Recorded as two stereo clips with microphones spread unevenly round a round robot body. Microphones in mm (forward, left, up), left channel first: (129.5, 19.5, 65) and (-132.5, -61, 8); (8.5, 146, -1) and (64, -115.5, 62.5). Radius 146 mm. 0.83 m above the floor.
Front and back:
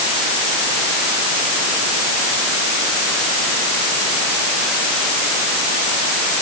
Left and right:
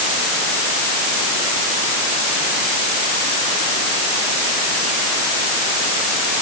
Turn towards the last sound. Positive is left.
No sound to turn to.